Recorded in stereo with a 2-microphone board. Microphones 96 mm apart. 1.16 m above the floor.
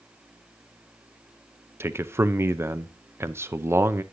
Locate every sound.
1.8 s a man speaking: 25° right (ahead or behind), 0.6 m